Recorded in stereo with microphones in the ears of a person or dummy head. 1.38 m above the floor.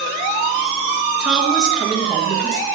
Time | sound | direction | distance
1.2 | a woman speaking | centre (ahead or behind) | 1.6 m